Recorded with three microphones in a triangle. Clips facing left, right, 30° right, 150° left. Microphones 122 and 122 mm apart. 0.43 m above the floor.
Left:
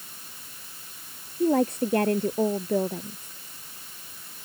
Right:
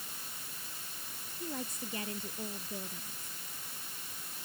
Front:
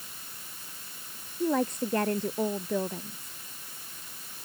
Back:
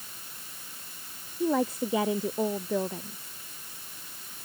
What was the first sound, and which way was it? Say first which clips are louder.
A woman speaking: left 19 dB, back 1 dB; 65° left.